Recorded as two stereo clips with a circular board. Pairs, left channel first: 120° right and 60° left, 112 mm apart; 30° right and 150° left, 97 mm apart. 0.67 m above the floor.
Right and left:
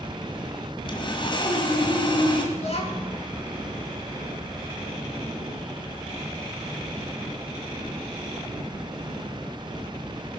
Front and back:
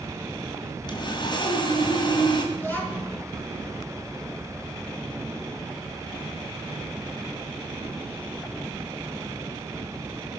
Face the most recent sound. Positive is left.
turn(degrees=-100)